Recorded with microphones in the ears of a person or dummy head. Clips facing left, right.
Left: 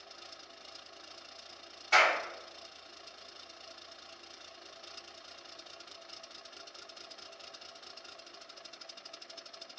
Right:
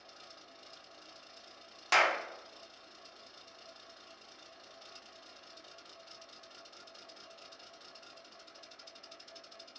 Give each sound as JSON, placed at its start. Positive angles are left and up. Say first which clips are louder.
{"t": 1.9, "sound": "a clap", "louder": "left 1 dB", "side_deg": -75, "distance_m": 0.8}